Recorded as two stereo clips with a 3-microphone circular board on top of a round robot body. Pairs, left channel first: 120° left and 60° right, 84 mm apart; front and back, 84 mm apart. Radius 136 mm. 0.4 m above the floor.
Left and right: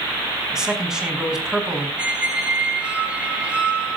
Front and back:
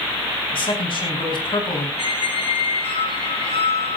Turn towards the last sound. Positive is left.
turn(degrees=20)